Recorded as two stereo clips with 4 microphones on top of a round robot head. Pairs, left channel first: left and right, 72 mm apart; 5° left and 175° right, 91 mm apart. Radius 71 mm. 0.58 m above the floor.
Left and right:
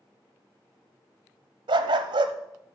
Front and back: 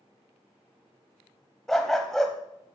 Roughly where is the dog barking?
Right.